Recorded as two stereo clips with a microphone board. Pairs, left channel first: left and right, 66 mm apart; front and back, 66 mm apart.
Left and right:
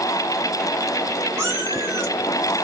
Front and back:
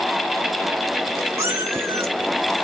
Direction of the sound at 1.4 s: 135° right.